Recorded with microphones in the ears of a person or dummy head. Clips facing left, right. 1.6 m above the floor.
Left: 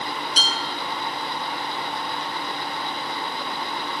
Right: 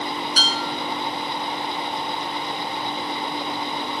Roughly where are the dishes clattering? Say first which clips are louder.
Right 3 dB; centre.